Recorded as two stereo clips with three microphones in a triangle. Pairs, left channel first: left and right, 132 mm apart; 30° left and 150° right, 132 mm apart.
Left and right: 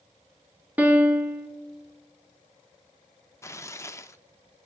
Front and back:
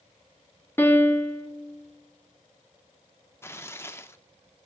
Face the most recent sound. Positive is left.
turn(degrees=70)